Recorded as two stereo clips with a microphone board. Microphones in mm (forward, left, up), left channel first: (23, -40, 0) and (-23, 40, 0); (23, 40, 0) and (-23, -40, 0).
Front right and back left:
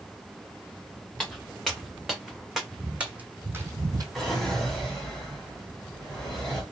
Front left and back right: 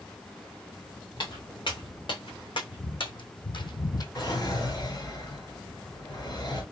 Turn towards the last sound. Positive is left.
turn(degrees=25)